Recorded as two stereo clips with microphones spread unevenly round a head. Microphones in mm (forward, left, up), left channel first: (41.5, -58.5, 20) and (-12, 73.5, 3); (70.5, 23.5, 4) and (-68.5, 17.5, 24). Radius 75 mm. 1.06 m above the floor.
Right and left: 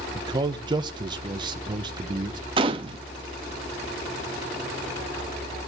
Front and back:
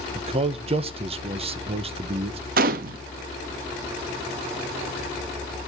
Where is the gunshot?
175° left, 0.6 m.